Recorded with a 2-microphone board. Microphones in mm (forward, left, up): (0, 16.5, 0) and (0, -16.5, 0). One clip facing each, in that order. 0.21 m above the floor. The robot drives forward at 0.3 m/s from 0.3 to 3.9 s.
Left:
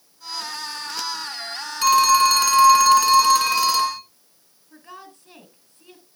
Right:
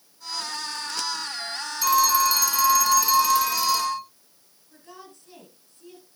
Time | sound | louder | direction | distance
1.8 | a phone ringing | left 5 dB | 60° left (ahead or behind) | 1.1 m
4.7 | a woman speaking | left 4 dB | 45° left (ahead or behind) | 2.5 m